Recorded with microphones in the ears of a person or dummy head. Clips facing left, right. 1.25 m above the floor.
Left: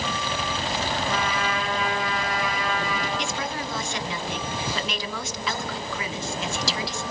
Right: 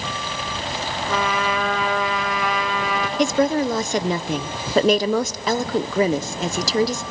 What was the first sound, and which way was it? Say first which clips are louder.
A trumpet: right 4 dB; 65° right (ahead or behind).